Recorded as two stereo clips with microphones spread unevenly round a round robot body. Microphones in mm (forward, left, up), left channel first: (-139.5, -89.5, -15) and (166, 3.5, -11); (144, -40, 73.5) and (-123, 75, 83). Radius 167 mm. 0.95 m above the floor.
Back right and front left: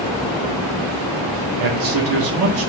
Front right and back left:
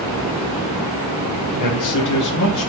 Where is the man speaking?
Straight ahead, 1.4 m.